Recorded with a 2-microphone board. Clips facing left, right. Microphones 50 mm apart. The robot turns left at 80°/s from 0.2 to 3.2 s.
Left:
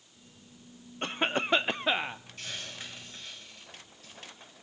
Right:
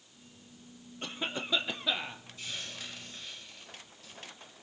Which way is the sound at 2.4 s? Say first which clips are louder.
Right 2 dB; 65° left (ahead or behind).